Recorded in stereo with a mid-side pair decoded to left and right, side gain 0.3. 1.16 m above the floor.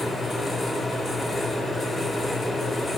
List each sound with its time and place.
0.0 s a fan: 50° left, 1.6 m